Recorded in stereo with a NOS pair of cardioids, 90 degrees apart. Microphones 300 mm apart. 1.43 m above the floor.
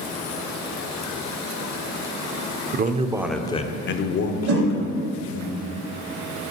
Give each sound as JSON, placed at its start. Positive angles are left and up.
{"t": 2.7, "sound": "a man speaking", "azimuth_deg": -35, "distance_m": 0.7}
{"t": 4.5, "sound": "a whoosh", "azimuth_deg": -55, "distance_m": 1.4}